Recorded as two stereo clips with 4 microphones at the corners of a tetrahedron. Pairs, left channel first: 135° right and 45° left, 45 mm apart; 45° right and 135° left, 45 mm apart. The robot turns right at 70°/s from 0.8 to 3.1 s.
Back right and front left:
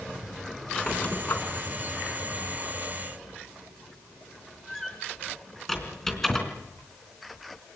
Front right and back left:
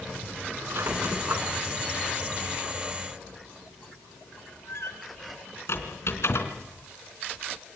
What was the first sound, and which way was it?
A squeak, 145° left.